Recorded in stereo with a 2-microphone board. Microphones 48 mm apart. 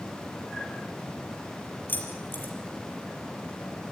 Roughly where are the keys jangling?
Left.